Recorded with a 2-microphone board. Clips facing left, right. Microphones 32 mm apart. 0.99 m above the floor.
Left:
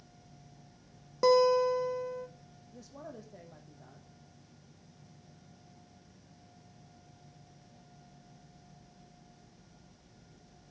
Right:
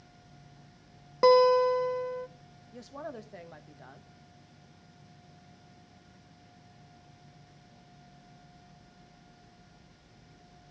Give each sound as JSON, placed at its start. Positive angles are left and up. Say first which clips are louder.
{"t": 1.2, "sound": "a guitar", "louder": "right 4 dB", "side_deg": -30, "distance_m": 0.6}
{"t": 2.7, "sound": "a woman speaking", "louder": "right 6 dB", "side_deg": -55, "distance_m": 1.1}